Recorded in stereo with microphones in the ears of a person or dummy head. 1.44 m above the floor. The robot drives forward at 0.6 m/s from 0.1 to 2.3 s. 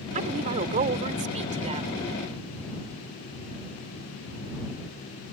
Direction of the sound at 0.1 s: 40° right (ahead or behind).